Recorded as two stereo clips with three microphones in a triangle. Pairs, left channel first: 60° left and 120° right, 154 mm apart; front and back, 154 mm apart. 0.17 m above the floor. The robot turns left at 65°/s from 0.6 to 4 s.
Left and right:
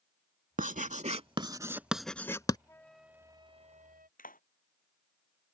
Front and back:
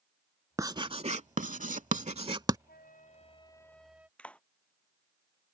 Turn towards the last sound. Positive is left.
turn(degrees=80)